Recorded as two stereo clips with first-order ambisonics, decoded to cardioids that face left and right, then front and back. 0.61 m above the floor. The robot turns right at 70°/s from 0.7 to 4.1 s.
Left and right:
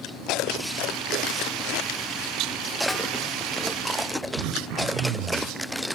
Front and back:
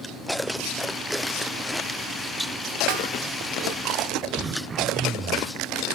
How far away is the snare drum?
About 3 m.